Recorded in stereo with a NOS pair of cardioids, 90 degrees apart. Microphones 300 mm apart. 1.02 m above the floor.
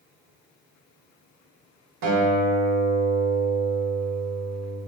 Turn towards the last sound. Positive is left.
turn(degrees=-70)